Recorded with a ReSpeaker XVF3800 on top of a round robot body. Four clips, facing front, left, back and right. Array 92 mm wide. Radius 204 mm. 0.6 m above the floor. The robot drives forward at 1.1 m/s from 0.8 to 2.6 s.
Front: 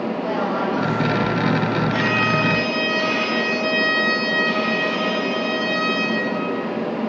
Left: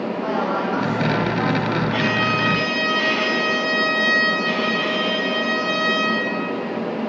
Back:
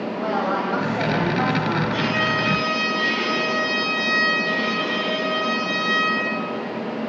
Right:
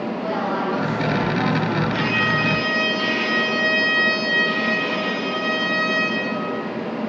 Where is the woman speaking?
165° left, 5 m; by 1.8 s 170° left, 6 m.